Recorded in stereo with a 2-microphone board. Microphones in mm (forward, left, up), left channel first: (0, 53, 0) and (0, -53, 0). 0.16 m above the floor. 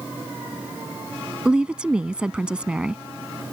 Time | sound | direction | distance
1.4 | a woman speaking | 10° right (ahead or behind) | ?